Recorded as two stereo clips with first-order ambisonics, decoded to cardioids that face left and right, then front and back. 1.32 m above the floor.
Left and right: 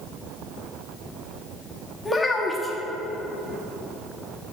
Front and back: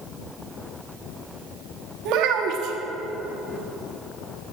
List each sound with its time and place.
2.0 s a child speaking: 170° left, 1.1 m